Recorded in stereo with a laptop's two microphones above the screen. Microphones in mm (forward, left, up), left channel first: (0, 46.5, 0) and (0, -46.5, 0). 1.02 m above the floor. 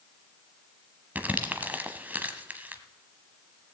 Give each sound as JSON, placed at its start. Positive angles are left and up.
{"t": 1.1, "sound": "crumpling", "side_deg": -20, "distance_m": 1.1}